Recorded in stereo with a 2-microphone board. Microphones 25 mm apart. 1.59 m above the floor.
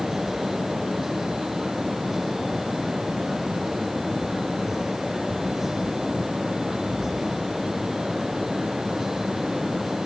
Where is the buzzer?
I don't hear a buzzer.